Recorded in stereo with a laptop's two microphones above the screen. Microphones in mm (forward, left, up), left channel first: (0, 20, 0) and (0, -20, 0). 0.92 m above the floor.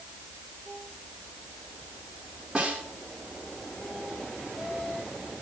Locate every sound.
2.5 s a snare drum: 25° right (ahead or behind), 2 m